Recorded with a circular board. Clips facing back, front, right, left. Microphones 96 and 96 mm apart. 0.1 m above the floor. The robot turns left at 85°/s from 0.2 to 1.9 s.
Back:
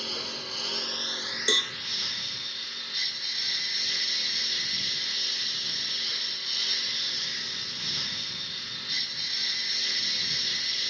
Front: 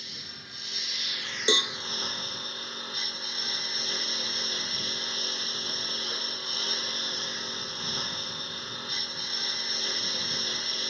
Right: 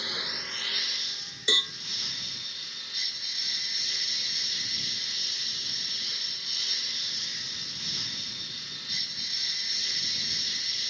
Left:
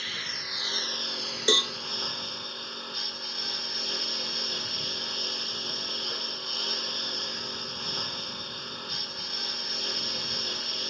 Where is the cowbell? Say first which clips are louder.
Front 4 dB, left 6 dB; 60° left; by 1.7 s 40° left.